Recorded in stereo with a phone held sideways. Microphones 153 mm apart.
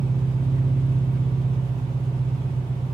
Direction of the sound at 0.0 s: 25° right (ahead or behind).